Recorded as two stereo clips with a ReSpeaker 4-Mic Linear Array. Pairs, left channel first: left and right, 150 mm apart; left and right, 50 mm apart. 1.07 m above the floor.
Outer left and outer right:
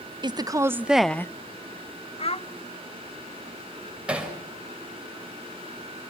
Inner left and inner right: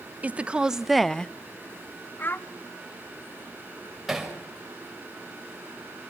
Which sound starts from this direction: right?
A woman speaking, at 0.2 s.